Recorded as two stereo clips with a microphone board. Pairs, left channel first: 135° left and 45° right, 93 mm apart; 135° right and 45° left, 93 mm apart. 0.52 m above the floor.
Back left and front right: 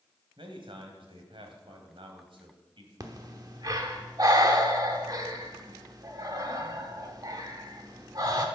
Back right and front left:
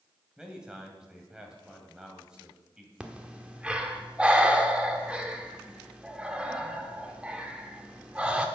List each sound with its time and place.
0.4 s a man speaking: 35° right, 2.5 m
3.0 s breathing: 30° right, 1.2 m